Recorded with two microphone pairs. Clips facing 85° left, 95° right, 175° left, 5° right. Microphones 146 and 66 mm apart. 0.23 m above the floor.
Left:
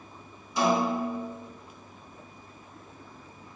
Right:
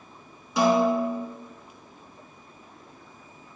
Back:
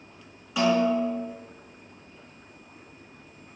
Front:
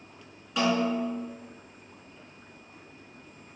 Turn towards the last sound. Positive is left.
turn(degrees=-100)